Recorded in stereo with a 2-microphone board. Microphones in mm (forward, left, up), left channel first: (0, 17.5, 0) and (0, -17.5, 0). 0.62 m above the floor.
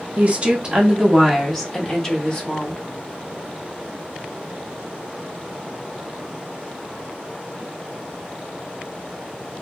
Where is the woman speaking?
40° right (ahead or behind), 0.9 m; by 2.8 s 30° left (ahead or behind), 1.5 m.